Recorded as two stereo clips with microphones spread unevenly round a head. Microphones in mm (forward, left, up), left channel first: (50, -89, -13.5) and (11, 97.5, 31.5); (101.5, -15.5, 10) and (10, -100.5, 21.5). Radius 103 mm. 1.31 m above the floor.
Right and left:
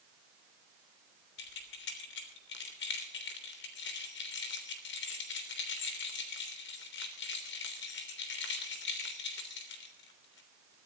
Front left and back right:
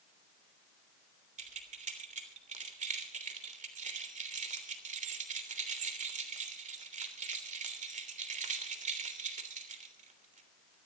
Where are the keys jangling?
120° right, 3 m.